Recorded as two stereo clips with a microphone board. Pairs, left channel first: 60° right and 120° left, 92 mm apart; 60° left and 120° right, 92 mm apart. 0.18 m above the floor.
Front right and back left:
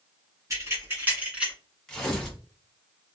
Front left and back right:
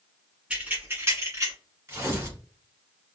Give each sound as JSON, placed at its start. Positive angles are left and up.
{"t": 0.5, "sound": "keys jangling", "azimuth_deg": 165, "distance_m": 1.4}
{"t": 1.9, "sound": "tearing paper", "azimuth_deg": -140, "distance_m": 1.2}